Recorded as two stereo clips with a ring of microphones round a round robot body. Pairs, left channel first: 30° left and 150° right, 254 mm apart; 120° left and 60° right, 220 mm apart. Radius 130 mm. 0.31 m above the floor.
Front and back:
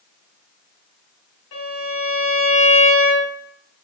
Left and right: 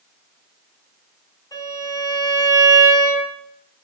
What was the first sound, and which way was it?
A violin, 50° left.